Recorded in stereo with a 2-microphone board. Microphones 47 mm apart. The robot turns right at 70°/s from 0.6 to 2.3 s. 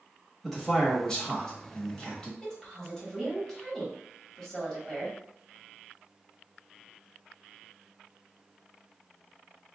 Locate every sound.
0.4 s a man speaking: centre (ahead or behind), 0.9 m; by 2.3 s 15° left (ahead or behind), 0.9 m
2.4 s a woman speaking: 15° left (ahead or behind), 1.0 m